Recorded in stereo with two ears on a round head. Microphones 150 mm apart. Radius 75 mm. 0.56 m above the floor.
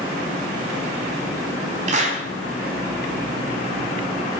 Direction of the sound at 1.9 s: 45° right (ahead or behind).